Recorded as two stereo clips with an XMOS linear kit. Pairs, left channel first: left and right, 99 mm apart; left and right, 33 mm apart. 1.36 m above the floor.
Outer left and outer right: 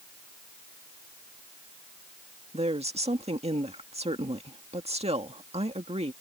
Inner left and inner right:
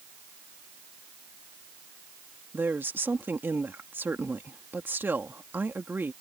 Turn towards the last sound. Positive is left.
turn(degrees=-80)